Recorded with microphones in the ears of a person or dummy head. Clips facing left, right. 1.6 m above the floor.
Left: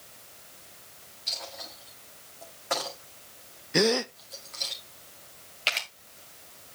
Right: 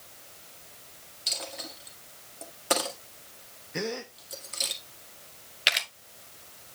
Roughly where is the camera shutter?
Centre.